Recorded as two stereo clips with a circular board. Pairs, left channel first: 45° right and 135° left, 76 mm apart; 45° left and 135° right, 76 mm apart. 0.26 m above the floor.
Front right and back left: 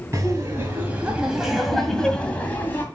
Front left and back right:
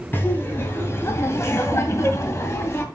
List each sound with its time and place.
0.1 s laughter: 100° left, 2.5 m; by 2.8 s 5° left, 2.5 m